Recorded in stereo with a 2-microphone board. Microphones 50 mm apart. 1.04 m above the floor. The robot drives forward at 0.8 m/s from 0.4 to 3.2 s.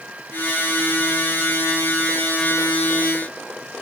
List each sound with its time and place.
Only background noise.